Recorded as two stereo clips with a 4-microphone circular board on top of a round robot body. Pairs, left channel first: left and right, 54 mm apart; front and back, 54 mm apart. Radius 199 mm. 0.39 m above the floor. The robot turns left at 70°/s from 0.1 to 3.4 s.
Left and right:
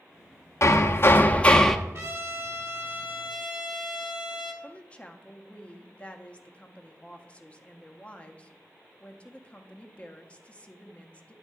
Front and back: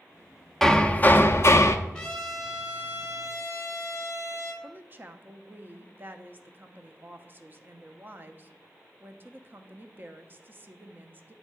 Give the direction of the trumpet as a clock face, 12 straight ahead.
2 o'clock.